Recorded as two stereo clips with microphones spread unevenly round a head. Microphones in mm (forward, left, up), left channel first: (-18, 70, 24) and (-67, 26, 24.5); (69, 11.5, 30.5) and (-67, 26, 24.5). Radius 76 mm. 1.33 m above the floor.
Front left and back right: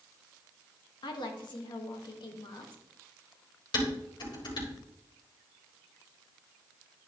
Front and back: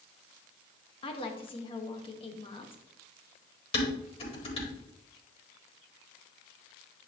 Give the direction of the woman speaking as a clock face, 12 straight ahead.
10 o'clock.